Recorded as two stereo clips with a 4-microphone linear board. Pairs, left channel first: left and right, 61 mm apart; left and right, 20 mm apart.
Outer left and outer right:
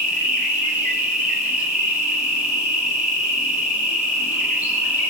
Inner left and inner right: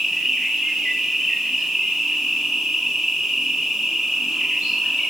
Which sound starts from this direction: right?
An insect, at 0.0 s.